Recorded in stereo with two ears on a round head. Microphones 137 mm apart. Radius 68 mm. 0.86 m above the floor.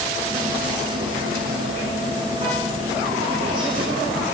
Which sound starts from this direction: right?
Whispering, at 0.3 s.